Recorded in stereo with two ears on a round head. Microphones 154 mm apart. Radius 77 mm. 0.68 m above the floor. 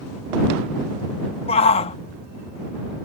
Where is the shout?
35° left (ahead or behind).